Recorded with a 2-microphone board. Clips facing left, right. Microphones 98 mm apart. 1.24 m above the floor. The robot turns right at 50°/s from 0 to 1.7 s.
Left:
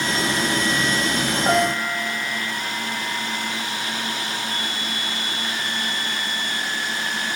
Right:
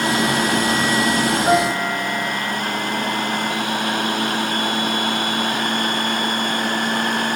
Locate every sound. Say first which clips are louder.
1.4 s a piano: even; centre (ahead or behind), 1.4 m; by 2.3 s 10° left (ahead or behind), 1.4 m